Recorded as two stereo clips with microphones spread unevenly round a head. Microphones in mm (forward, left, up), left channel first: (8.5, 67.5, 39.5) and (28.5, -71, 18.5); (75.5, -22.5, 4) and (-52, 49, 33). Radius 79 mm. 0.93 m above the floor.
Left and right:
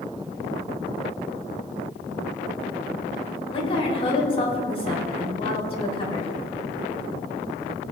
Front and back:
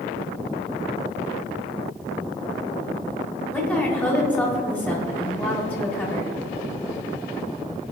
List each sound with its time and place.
3.5 s a woman speaking: 50° left, 4 m